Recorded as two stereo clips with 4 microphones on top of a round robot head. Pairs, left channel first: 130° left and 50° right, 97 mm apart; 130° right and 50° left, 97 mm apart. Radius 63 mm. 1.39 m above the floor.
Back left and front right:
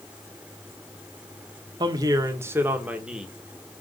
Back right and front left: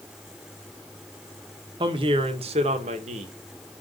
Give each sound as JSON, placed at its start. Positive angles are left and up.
{"t": 1.8, "sound": "a woman speaking", "azimuth_deg": 0, "distance_m": 1.3}